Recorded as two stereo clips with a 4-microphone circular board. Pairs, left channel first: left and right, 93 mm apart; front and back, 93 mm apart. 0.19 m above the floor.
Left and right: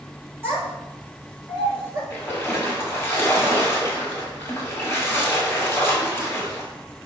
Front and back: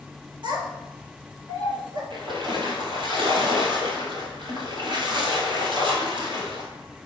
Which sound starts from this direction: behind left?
A splash, at 2.1 s.